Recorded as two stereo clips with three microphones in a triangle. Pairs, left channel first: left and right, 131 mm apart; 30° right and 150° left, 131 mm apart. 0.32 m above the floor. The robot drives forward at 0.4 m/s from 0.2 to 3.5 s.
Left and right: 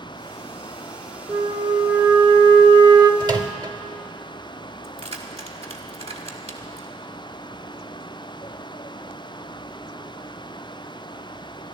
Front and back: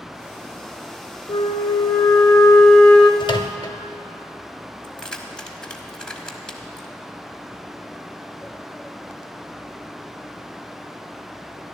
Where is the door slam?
No door slam in this recording.